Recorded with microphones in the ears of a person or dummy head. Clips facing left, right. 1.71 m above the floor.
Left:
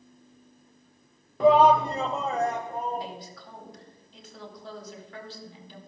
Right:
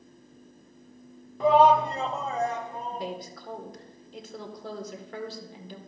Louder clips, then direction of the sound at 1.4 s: Left 1 dB; 55° left (ahead or behind).